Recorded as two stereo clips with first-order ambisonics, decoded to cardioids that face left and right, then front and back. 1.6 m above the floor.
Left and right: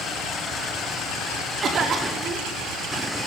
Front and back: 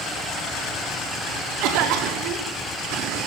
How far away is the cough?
About 5 m.